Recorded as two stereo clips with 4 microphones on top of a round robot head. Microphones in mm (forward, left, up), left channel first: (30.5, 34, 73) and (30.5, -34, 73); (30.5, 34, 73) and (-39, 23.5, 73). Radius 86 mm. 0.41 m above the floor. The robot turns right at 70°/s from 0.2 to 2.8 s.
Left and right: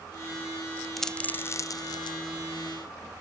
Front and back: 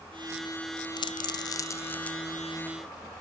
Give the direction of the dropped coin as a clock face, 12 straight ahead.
12 o'clock.